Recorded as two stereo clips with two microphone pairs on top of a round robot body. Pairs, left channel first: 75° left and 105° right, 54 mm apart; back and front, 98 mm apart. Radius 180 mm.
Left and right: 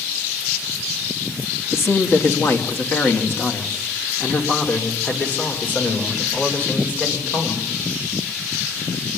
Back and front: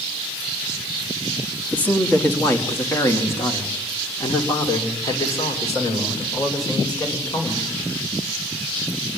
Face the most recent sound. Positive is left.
turn(degrees=130)